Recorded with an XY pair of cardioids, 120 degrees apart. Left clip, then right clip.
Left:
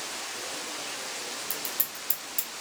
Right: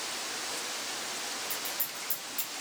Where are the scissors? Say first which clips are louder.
Left 1 dB; 50° left, 1.0 m.